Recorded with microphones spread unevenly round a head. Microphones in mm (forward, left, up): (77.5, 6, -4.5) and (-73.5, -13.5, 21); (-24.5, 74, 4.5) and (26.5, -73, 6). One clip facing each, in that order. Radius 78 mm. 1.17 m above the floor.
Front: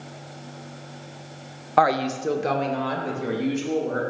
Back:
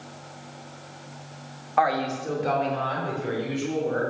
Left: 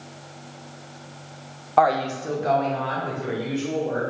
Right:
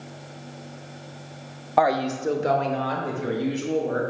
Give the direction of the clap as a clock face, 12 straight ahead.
No clap in this recording.